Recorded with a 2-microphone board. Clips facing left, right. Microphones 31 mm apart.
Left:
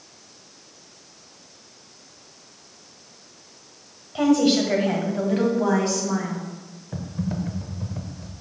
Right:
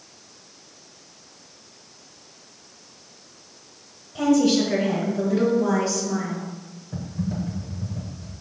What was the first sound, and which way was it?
A woman speaking, 45° left (ahead or behind).